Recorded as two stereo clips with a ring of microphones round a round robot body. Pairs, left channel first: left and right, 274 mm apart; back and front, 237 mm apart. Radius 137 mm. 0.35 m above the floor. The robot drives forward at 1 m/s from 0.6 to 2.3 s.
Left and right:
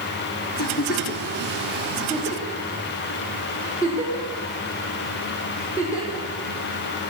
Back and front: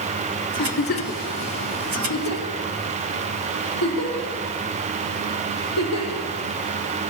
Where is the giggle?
130° left, 0.5 m; by 6.3 s 170° left, 2 m.